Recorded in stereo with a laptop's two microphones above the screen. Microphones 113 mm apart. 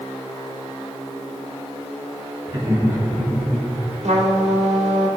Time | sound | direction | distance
2.5 | laughter | 35° right (ahead or behind) | 1.9 m
4.0 | a trumpet | 80° right | 1.9 m